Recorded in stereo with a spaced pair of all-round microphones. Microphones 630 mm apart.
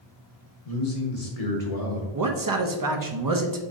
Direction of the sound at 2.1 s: 35° right (ahead or behind).